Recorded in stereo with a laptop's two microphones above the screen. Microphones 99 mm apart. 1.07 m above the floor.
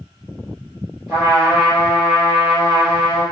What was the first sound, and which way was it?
A trumpet, 10° right (ahead or behind).